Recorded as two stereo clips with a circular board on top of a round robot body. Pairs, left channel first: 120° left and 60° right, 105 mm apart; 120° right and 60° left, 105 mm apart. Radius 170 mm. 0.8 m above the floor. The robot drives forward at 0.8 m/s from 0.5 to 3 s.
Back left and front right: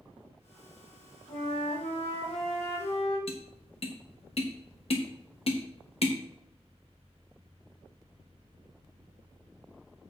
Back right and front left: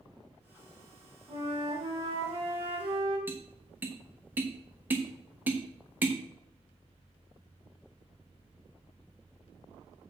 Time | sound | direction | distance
1.3 | a flute | 85° left | 7 m
3.3 | tapping | 130° left | 2 m